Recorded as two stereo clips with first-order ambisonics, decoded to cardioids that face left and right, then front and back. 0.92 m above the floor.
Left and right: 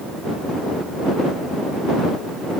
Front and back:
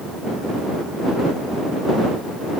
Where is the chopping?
I don't hear chopping.